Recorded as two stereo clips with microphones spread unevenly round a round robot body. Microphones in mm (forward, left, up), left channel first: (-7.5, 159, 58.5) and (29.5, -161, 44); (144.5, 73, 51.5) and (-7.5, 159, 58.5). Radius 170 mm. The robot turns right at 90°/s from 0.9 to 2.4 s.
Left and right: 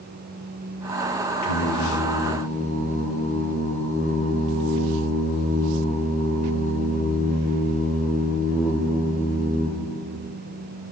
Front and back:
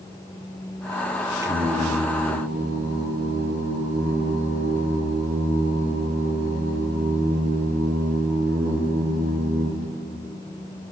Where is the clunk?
No clunk in this recording.